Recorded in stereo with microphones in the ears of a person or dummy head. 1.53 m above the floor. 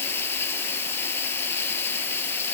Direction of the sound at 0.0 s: 10° left (ahead or behind).